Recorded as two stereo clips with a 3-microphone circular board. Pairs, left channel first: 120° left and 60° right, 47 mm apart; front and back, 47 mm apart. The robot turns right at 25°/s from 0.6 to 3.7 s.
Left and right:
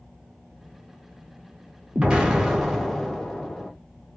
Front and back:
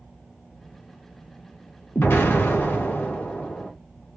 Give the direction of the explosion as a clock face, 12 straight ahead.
12 o'clock.